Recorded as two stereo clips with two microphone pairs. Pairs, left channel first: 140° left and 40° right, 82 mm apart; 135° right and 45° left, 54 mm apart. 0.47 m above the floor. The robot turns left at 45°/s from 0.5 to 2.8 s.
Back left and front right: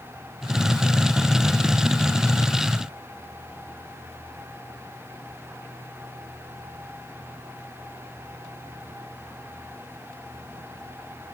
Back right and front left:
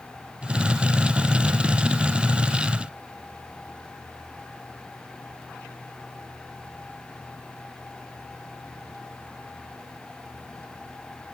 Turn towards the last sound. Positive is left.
No sound to turn to.